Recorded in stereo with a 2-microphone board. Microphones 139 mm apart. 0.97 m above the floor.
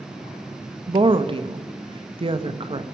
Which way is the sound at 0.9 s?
40° right (ahead or behind).